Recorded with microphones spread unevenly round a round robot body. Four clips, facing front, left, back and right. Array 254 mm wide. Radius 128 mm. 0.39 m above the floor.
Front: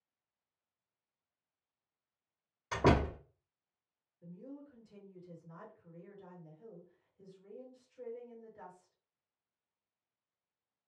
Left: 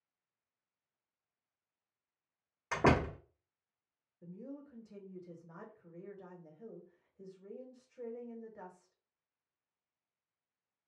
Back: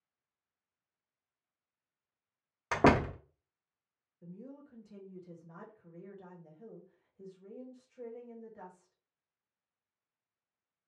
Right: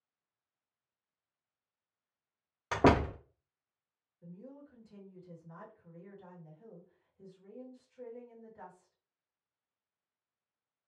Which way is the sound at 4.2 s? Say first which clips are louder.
Left 3 dB, even; 100° left.